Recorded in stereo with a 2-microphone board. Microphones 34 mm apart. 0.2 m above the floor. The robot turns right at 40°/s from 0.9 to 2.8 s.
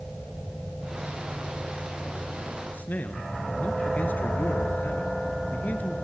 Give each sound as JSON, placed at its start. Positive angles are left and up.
{"t": 2.7, "sound": "a man speaking", "side_deg": 55, "distance_m": 2.5}